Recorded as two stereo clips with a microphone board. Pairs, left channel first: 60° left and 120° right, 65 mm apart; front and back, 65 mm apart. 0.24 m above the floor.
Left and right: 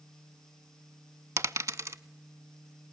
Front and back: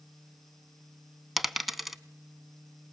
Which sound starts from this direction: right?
A dropped coin, at 1.4 s.